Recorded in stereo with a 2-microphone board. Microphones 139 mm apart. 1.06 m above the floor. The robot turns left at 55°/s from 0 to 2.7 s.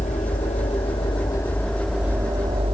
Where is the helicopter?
100° left; by 2.8 s 45° right.